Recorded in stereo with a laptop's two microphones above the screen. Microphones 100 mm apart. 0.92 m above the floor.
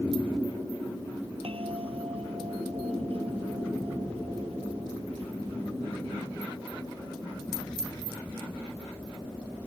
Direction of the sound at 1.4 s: 70° right (ahead or behind).